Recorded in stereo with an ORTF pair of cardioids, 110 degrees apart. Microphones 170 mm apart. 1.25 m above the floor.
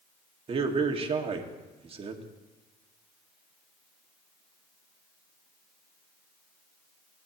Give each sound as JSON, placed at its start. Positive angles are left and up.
{"t": 0.5, "sound": "a man speaking", "azimuth_deg": -35, "distance_m": 2.0}